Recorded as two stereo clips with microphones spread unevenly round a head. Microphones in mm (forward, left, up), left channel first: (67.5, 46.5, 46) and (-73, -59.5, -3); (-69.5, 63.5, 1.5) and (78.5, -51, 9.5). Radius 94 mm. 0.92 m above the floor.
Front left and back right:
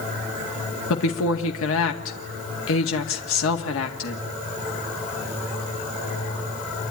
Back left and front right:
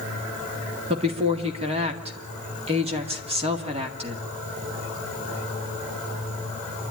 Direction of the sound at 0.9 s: 20° left.